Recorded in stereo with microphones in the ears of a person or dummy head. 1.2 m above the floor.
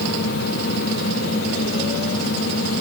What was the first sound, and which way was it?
Only background noise.